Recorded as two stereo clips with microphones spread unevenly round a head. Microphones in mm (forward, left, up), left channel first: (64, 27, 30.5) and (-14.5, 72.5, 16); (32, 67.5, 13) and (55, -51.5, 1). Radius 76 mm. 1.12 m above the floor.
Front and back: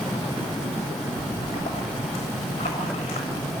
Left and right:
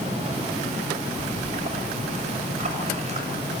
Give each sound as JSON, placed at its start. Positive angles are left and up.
{"t": 1.2, "sound": "a splash", "azimuth_deg": -50, "distance_m": 6.5}